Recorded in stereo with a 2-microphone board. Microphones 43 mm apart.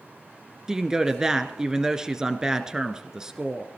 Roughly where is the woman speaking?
Centre.